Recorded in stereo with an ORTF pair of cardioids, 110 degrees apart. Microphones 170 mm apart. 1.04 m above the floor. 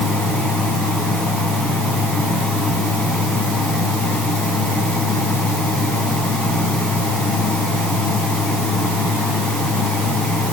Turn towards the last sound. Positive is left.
turn(degrees=5)